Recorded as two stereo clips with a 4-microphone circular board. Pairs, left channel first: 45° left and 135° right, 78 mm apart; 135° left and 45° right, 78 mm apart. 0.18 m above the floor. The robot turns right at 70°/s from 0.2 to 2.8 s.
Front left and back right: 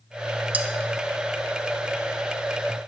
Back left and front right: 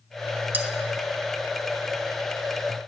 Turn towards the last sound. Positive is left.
turn(degrees=75)